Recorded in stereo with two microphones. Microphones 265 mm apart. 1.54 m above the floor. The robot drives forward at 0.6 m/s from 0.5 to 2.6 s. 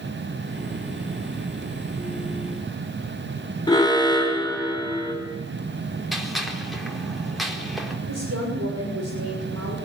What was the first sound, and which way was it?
An alarm, 15° left (ahead or behind).